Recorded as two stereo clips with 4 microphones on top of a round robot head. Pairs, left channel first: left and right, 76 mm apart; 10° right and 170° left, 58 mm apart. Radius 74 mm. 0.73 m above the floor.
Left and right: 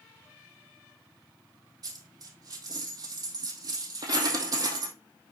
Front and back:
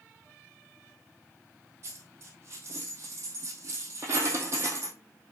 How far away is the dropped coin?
About 2 m.